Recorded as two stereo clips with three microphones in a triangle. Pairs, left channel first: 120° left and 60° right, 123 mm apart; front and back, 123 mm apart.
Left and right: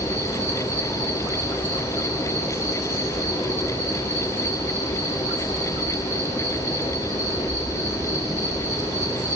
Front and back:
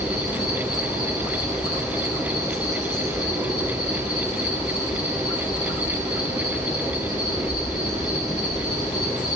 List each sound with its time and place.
0.0 s an insect: straight ahead, 7 m